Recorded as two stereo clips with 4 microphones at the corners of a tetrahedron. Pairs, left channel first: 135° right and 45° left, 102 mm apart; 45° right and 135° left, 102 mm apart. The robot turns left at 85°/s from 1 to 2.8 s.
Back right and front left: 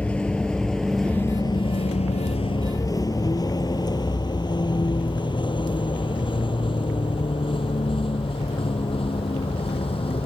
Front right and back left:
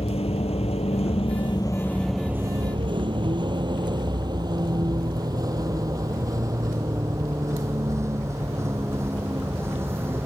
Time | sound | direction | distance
0.0 | a vehicle | 55° right | ?